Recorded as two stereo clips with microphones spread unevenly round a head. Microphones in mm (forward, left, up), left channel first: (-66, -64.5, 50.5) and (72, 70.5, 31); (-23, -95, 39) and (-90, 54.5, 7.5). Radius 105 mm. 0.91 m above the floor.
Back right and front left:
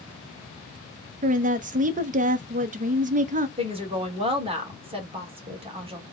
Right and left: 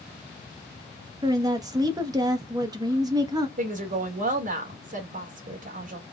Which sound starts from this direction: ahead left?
A woman speaking, at 1.2 s.